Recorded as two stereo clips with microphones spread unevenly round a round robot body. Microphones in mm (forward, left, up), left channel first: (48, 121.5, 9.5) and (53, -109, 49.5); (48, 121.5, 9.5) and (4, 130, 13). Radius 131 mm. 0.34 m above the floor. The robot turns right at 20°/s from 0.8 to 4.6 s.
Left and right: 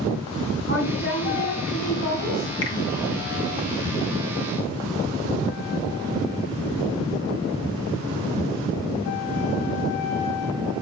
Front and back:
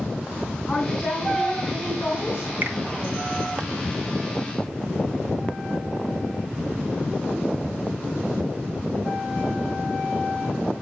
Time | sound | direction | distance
0.7 | a woman speaking | 50° left | 4 m
2.6 | a finger snap | 125° left | 3 m